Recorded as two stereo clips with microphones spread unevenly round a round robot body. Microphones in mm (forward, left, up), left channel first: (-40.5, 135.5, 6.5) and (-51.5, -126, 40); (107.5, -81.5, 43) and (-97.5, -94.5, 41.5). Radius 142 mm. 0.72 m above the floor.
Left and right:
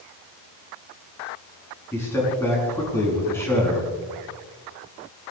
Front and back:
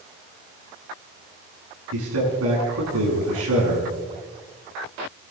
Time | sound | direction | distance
1.9 | a man speaking | 170° left | 6.5 m